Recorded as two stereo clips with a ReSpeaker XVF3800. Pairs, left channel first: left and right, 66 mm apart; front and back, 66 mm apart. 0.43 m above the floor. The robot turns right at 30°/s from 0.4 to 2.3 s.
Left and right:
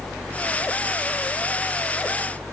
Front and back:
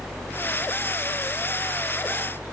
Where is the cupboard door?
I don't hear a cupboard door.